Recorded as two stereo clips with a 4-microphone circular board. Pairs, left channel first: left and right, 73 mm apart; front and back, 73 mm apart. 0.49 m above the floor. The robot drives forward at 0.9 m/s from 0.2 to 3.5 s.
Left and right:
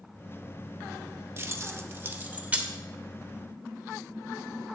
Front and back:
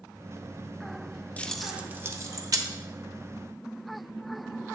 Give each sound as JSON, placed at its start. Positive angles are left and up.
{"t": 1.4, "sound": "keys jangling", "azimuth_deg": -60, "distance_m": 0.7}